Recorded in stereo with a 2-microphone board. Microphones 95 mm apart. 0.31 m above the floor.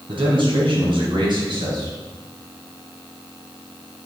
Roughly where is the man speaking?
Right.